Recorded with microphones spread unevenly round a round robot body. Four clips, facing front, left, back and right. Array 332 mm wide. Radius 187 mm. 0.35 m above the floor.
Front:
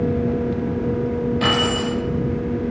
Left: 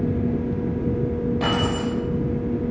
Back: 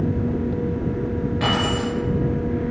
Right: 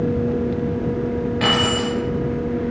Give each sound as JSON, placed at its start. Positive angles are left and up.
{"t": 1.4, "sound": "keys jangling", "azimuth_deg": 115, "distance_m": 3.5}